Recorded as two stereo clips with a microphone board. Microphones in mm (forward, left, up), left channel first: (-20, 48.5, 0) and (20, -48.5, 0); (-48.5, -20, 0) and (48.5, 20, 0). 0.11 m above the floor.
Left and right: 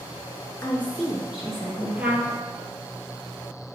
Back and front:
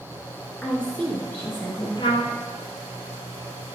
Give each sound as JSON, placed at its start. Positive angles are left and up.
{"t": 0.6, "sound": "a woman speaking", "azimuth_deg": 125, "distance_m": 1.2}
{"t": 2.0, "sound": "a trumpet", "azimuth_deg": -140, "distance_m": 1.0}